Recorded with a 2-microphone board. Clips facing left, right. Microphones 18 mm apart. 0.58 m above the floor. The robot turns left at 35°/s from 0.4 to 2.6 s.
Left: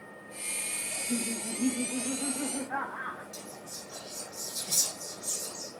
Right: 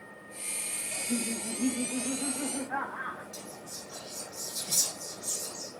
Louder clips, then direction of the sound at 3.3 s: Even; 55° left (ahead or behind).